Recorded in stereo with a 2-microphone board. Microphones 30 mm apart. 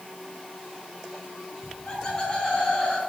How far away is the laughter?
About 5.5 m.